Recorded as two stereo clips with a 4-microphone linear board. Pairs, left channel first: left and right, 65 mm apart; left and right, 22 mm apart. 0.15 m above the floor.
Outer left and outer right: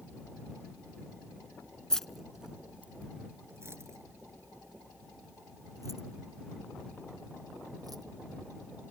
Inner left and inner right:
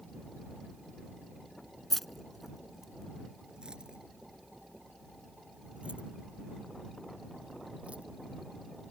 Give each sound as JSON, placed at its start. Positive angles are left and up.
{"t": 1.9, "sound": "keys jangling", "side_deg": 10}